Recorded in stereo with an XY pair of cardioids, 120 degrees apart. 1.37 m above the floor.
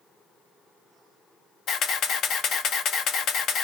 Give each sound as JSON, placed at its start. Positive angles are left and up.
{"t": 1.7, "sound": "a camera shutter", "azimuth_deg": 60, "distance_m": 0.8}